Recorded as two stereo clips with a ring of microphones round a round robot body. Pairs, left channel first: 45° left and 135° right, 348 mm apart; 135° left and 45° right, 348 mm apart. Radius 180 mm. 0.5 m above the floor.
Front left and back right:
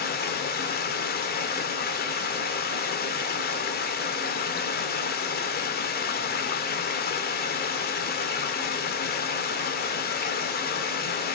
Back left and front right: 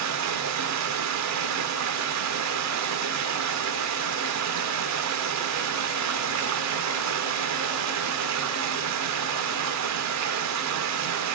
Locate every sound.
0.0 s running water: 15° right, 1.6 m